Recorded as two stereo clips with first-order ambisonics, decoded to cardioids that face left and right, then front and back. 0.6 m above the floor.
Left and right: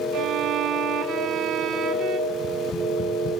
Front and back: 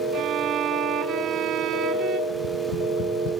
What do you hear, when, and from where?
0.1 s a violin: 135° right, 1.8 m
2.3 s tapping: 30° left, 3.5 m